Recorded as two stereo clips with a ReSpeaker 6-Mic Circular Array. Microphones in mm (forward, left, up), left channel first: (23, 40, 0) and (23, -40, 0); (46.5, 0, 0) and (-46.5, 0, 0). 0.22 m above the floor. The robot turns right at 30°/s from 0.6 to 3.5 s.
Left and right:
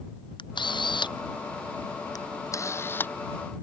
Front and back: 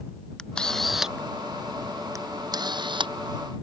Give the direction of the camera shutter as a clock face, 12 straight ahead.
9 o'clock.